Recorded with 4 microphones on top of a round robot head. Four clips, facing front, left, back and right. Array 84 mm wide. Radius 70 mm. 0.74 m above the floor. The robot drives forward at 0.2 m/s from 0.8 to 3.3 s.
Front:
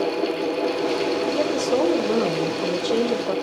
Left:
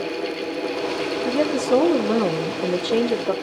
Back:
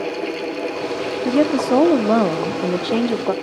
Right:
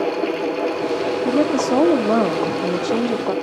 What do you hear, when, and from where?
1.2 s a woman speaking: 155° right, 1.8 m; by 3.3 s 160° right, 2 m